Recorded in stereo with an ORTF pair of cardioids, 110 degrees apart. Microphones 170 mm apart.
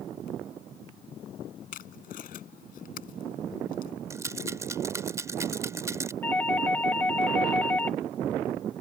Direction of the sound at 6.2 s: 10° left.